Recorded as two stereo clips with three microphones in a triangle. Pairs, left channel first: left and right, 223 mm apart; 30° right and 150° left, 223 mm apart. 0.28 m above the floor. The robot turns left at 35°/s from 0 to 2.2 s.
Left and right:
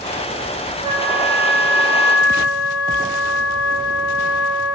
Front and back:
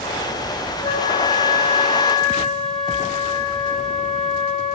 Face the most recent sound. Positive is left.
turn(degrees=-115)